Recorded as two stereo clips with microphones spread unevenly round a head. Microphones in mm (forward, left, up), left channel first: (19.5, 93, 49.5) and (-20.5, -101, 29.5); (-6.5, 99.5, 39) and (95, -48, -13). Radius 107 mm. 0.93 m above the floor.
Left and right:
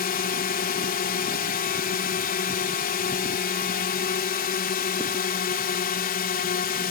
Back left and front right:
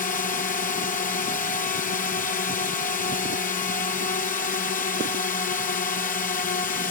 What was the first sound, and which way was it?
A drone, 85° left.